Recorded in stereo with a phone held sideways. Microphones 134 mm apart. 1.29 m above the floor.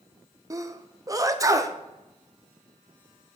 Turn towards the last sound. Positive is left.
turn(degrees=-25)  # may be behind; listen again after turning